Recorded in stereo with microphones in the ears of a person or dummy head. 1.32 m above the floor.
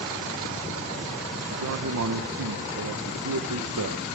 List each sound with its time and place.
1.5 s a man speaking: 75° right (ahead or behind), 0.9 m